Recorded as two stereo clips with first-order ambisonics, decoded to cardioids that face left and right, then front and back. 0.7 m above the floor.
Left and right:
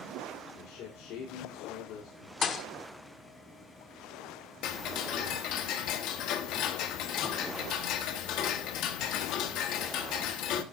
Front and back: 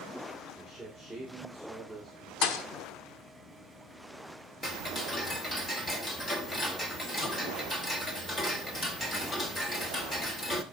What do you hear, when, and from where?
0.5 s a man speaking: 80° left, 2.0 m
2.4 s a thud: 25° left, 0.7 m
4.6 s ticking: 75° left, 1.0 m